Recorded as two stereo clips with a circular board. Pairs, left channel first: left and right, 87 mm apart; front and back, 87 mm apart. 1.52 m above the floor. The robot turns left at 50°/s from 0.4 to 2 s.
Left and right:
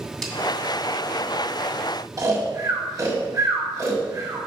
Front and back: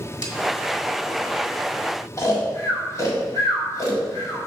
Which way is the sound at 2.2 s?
50° right.